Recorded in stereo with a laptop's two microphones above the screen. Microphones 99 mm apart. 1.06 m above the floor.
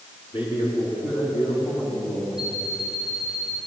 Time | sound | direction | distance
0.3 | a man speaking | 65° left (ahead or behind) | 10 m
2.4 | an alarm clock | 40° left (ahead or behind) | 9 m